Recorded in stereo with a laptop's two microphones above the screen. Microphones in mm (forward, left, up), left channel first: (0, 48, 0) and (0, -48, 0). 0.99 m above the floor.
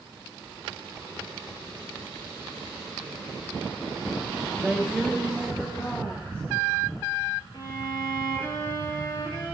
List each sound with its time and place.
4.6 s a woman speaking: 15° right (ahead or behind), 1.2 m; by 7.1 s 25° left (ahead or behind), 4 m
7.5 s a violin: 50° left (ahead or behind), 5.5 m